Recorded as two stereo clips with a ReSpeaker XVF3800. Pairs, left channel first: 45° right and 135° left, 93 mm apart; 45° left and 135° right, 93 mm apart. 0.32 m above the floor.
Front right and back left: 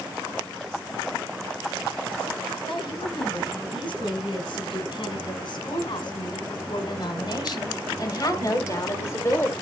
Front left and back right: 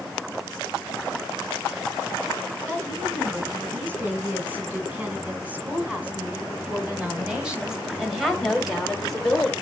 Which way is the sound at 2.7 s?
65° right.